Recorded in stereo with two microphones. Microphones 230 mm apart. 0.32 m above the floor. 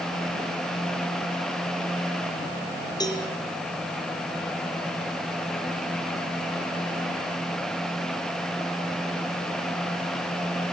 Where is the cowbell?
15° left (ahead or behind), 5.5 m.